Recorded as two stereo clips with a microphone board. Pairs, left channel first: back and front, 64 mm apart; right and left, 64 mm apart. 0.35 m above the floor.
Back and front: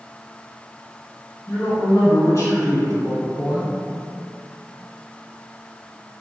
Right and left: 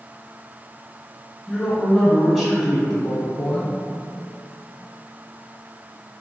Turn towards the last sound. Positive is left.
turn(degrees=170)